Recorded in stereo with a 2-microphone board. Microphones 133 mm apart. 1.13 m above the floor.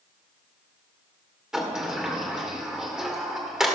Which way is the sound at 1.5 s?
5° right (ahead or behind).